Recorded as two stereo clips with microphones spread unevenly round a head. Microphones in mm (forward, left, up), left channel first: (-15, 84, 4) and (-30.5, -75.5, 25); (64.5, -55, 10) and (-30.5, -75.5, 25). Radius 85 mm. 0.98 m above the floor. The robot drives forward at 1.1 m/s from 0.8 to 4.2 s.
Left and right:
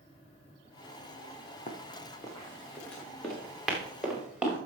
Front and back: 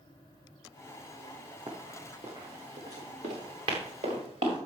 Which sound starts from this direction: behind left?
Running footsteps, at 1.7 s.